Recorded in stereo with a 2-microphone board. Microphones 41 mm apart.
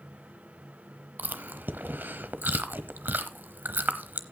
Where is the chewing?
60° right (ahead or behind), 0.9 m.